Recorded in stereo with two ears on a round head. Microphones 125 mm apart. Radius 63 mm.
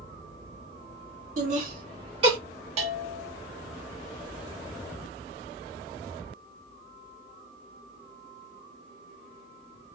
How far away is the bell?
About 1.3 m.